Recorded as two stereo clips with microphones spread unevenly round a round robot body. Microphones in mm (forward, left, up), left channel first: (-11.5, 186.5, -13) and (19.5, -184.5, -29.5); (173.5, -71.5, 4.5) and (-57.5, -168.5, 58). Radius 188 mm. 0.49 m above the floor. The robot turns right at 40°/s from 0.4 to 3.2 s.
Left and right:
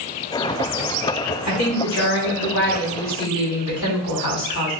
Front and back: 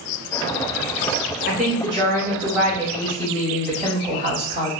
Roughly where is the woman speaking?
Ahead left.